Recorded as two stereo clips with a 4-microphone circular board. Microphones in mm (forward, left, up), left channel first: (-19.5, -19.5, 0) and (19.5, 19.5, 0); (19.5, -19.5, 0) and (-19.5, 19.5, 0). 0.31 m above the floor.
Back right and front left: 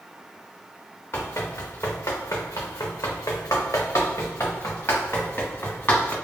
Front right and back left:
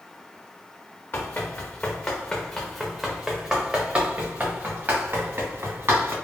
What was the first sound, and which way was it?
Running footsteps, 95° right.